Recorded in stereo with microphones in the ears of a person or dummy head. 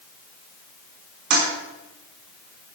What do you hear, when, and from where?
1.3 s a toilet flushing: 55° right (ahead or behind), 4.5 m